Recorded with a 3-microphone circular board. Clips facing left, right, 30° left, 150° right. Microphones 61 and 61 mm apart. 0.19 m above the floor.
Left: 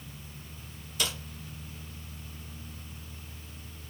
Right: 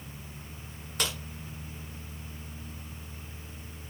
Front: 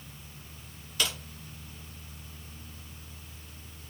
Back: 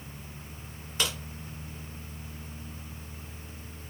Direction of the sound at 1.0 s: 90° right.